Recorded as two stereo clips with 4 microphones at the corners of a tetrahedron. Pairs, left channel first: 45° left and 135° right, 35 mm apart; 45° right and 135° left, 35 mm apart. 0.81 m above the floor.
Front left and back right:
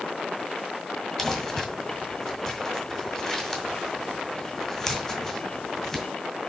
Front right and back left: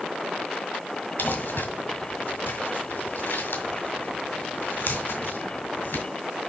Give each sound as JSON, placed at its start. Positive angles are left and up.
{"t": 1.2, "sound": "crumpling", "azimuth_deg": -35, "distance_m": 1.7}